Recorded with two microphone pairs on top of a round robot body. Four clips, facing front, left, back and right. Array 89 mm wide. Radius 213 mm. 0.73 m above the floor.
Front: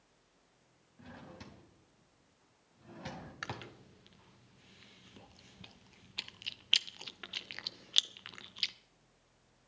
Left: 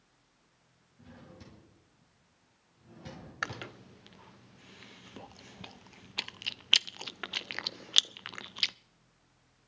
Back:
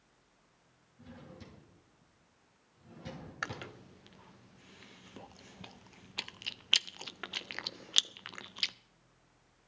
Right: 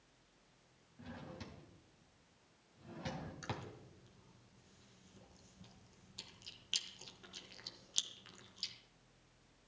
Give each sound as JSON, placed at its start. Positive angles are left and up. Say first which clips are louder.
{"t": 1.0, "sound": "a drawer", "louder": "right 2 dB, even", "azimuth_deg": -30, "distance_m": 1.7}
{"t": 3.4, "sound": "chewing", "louder": "left 8 dB, back 5 dB", "azimuth_deg": 110, "distance_m": 0.5}